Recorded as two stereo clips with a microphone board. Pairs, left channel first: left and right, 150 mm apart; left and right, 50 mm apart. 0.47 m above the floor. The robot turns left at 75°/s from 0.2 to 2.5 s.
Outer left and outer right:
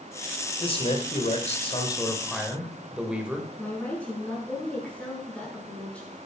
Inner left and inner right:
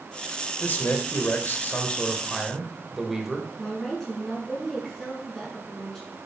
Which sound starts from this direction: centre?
A woman speaking, at 3.6 s.